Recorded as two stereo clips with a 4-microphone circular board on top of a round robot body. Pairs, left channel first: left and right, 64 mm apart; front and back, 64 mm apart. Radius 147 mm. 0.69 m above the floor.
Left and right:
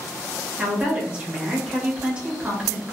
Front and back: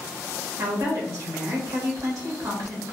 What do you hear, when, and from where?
0.6 s a woman speaking: 160° right, 1.2 m